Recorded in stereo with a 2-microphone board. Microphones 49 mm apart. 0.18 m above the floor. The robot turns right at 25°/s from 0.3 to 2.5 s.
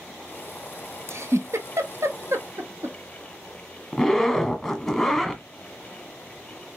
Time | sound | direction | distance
1.1 | a giggle | 60° right (ahead or behind) | 0.8 m
3.9 | a zipper | 5° left (ahead or behind) | 1.2 m